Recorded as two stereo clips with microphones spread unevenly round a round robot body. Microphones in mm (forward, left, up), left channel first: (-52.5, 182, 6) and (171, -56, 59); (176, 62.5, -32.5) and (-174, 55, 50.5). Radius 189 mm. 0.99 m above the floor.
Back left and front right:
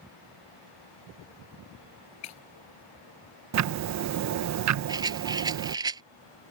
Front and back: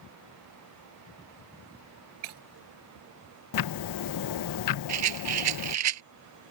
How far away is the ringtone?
No ringtone in this recording.